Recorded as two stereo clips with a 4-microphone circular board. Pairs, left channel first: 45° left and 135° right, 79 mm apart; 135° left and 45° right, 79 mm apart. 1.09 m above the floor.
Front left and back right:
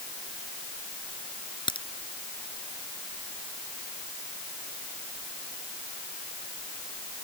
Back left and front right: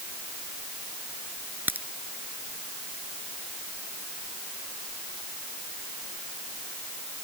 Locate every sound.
1.7 s a crack: 25° left